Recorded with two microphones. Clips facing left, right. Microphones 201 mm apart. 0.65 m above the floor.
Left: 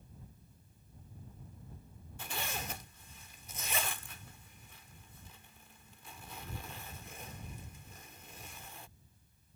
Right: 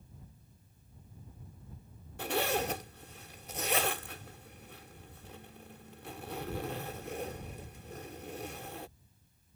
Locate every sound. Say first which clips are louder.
2.2 s a zipper: right 12 dB; 65° right (ahead or behind)